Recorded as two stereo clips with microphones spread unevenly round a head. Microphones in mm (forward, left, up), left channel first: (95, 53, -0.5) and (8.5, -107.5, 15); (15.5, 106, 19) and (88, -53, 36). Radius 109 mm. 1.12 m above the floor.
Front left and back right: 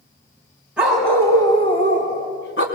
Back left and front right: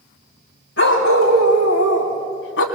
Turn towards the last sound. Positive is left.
turn(degrees=105)